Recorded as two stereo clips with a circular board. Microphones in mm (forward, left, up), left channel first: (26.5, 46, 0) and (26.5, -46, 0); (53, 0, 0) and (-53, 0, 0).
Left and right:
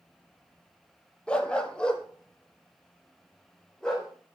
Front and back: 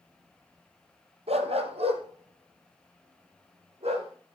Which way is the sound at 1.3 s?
170° left.